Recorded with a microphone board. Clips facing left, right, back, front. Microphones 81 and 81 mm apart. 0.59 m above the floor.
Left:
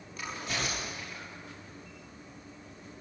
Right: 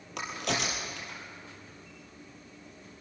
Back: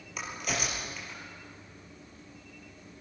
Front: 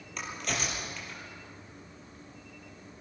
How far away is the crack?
About 5.5 m.